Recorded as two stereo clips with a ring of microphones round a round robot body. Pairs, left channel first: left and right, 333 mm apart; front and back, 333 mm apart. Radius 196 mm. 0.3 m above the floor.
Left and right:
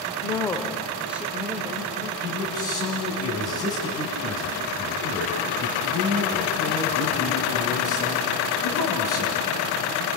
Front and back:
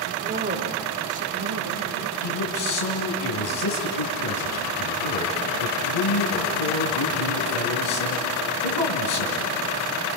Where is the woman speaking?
155° left, 1.4 m; by 2.1 s 165° right, 2.5 m.